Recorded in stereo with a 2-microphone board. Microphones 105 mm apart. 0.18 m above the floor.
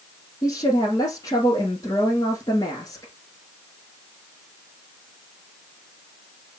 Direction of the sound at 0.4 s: 35° left (ahead or behind).